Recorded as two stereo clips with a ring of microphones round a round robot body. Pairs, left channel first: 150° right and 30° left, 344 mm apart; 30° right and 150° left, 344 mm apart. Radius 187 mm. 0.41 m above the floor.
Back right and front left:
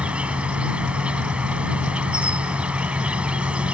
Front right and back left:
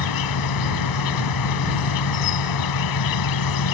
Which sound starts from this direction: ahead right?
An insect, at 0.0 s.